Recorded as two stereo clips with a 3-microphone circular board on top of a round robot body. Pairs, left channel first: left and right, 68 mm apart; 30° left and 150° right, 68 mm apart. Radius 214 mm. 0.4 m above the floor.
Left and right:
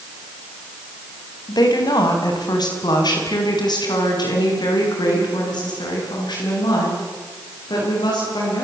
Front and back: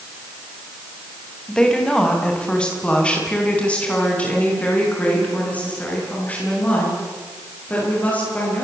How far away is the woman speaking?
About 4.5 m.